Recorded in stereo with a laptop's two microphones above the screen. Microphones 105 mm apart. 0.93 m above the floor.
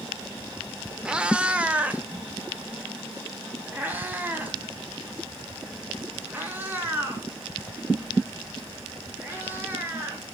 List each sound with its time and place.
1.1 s a cat meowing: 10° right (ahead or behind), 1.5 m; by 10.3 s 20° right (ahead or behind), 8.5 m